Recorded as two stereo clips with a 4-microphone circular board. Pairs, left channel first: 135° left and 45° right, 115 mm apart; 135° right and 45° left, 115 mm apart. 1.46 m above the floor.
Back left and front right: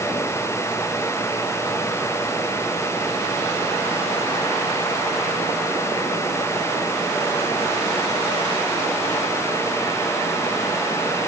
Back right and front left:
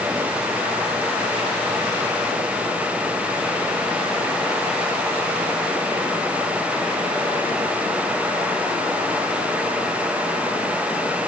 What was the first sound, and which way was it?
Only background noise.